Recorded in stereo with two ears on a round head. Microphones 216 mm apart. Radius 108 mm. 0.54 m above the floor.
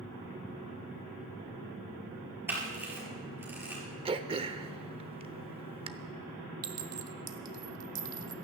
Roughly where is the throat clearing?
Right.